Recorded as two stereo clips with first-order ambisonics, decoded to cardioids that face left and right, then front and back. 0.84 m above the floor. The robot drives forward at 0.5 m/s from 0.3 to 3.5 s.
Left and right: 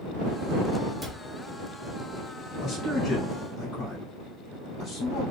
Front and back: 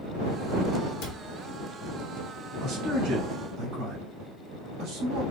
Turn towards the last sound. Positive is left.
turn(degrees=155)